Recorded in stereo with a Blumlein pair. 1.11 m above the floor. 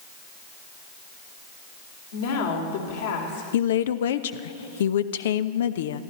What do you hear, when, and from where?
2.1 s a woman speaking: 55° left, 3 m
3.5 s a woman speaking: 60° left, 0.6 m